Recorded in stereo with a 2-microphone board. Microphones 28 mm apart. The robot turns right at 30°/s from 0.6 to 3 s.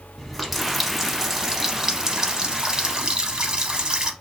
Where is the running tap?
Centre (ahead or behind), 0.7 m; by 4.1 s 25° right (ahead or behind), 0.7 m.